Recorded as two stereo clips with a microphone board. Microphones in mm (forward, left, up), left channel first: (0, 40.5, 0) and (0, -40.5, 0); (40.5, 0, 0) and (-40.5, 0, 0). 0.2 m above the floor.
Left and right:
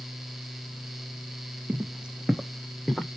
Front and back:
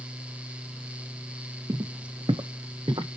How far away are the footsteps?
About 0.6 m.